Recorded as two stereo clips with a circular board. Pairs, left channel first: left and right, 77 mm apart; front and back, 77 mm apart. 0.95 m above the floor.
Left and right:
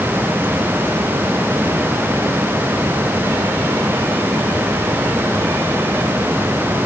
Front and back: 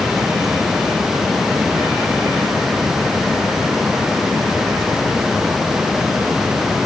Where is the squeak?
I don't hear a squeak.